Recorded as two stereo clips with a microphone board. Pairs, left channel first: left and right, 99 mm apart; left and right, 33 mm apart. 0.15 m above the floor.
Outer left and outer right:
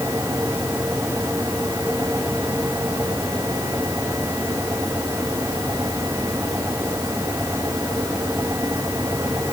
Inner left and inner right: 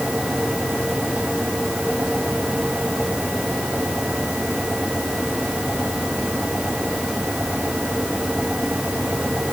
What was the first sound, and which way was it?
Only background noise.